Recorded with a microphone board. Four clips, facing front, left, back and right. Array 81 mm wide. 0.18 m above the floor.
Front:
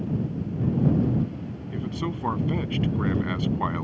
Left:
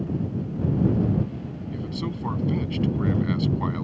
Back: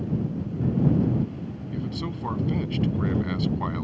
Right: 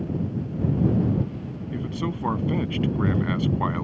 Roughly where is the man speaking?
Ahead right.